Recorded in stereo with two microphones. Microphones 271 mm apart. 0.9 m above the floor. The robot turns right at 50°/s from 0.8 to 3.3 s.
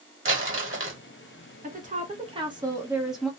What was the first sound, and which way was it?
Crumpling, 50° right (ahead or behind).